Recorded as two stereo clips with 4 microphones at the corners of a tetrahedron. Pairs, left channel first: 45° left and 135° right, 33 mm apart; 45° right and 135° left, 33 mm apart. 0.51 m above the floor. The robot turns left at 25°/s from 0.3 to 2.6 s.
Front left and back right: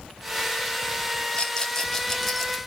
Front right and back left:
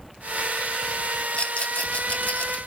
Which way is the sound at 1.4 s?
15° right.